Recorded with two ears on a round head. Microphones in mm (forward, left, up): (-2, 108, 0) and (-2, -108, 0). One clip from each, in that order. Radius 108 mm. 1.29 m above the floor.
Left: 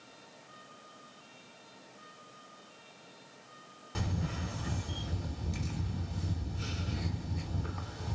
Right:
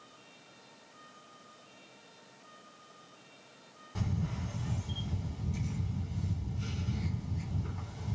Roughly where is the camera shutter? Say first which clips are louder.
Left 2 dB; left.